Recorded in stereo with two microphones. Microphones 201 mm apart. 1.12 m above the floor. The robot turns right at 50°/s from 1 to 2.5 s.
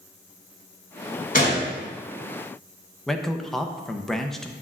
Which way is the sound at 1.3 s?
45° left (ahead or behind).